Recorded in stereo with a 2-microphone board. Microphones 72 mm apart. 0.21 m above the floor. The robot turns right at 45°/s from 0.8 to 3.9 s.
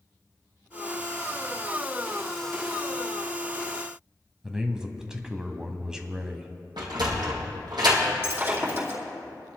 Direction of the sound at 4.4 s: 10° right (ahead or behind).